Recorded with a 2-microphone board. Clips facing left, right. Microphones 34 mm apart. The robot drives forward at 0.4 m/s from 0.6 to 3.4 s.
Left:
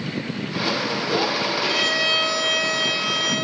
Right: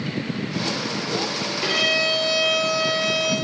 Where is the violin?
35° right (ahead or behind), 2.5 m; by 3.4 s 40° right (ahead or behind), 2 m.